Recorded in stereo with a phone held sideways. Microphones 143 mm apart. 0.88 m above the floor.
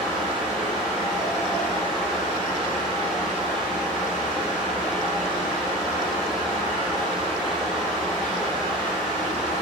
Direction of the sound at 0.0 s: 5° right (ahead or behind).